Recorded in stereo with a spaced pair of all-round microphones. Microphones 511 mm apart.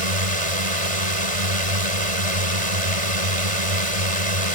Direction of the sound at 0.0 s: 85° right.